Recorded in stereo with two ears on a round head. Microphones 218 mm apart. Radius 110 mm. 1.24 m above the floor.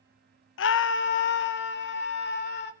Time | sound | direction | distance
0.6 | a scream | 50° left (ahead or behind) | 0.7 m